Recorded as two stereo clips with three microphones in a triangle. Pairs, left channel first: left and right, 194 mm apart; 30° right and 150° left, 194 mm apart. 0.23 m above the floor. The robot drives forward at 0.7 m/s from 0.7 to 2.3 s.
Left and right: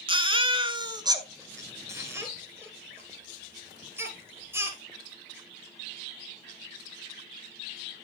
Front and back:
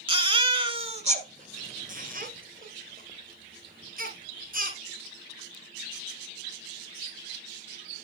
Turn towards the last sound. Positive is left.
turn(degrees=-165)